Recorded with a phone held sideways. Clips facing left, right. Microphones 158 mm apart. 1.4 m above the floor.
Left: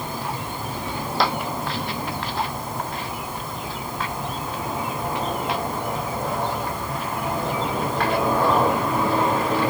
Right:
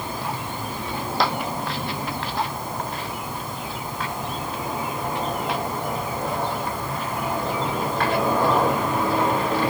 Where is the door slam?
I don't hear a door slam.